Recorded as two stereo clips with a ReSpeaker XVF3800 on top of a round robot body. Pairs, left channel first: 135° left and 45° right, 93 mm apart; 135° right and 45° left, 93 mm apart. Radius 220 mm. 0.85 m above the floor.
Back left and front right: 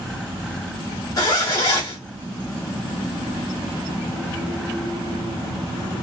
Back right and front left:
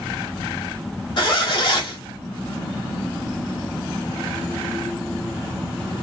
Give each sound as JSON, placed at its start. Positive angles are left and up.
{"t": 1.2, "sound": "a zipper", "azimuth_deg": -175, "distance_m": 0.9}